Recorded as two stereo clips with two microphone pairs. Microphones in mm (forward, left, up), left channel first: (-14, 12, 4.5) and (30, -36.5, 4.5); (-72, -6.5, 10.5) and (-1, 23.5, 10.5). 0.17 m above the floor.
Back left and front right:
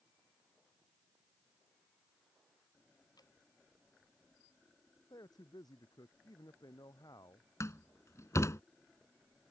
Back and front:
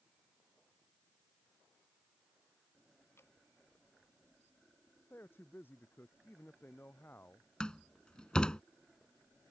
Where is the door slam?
130° left.